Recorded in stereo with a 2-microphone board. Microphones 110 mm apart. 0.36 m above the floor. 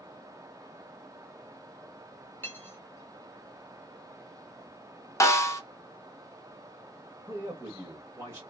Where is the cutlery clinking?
20° left (ahead or behind), 0.8 m.